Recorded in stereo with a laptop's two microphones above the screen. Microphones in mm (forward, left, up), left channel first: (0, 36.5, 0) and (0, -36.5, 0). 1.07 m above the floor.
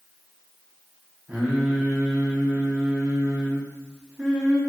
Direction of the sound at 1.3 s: 15° right (ahead or behind).